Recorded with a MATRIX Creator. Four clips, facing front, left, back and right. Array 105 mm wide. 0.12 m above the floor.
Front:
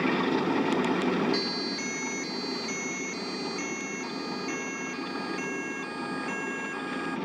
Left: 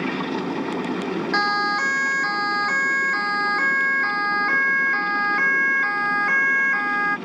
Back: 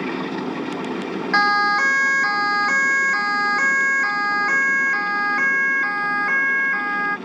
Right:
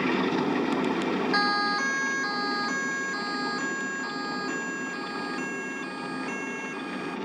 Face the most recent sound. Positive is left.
turn(degrees=130)